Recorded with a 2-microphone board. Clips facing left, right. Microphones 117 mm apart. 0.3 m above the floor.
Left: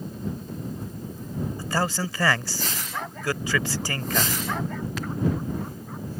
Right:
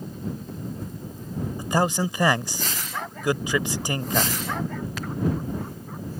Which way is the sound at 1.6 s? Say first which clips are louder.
Right 5 dB; 20° right (ahead or behind).